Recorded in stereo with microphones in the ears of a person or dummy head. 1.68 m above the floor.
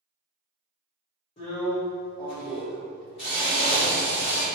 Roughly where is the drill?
Left.